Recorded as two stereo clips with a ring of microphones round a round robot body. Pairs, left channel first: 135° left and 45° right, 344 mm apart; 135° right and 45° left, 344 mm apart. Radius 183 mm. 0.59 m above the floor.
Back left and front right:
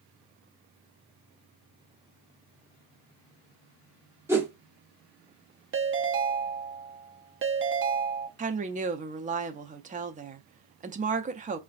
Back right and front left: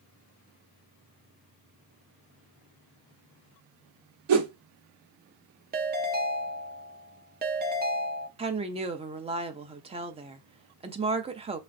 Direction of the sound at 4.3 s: 40° left.